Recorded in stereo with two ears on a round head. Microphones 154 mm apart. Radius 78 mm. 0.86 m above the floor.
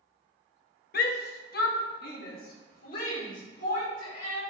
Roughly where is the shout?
Left.